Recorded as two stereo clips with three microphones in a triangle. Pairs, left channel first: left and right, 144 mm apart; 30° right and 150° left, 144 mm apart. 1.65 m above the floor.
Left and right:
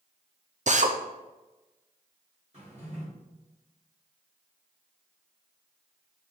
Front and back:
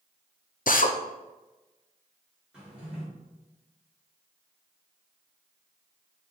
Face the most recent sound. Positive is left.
turn(degrees=-125)